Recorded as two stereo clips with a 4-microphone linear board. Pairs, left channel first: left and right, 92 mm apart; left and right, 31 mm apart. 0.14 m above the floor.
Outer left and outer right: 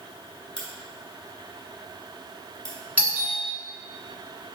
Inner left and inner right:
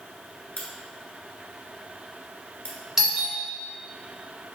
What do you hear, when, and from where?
0.6 s a crack: 55° left (ahead or behind), 1.0 m
3.0 s a doorbell: 20° right (ahead or behind), 1.9 m